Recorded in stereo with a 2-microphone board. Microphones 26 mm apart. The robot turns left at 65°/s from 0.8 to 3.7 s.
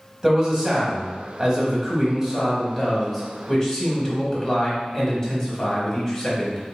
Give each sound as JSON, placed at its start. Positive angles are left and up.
{"t": 0.2, "sound": "a man speaking", "side_deg": -20, "distance_m": 1.1}